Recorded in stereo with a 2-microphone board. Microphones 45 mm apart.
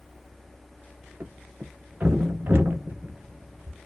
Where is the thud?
55° right (ahead or behind), 1.0 m.